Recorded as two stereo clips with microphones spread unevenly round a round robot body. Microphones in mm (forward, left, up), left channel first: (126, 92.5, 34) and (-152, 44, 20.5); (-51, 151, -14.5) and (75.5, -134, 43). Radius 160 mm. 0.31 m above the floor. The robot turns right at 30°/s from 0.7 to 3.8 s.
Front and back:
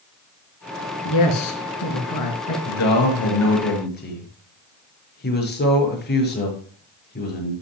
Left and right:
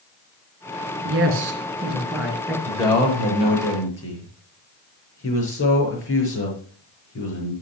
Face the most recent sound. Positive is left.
turn(degrees=65)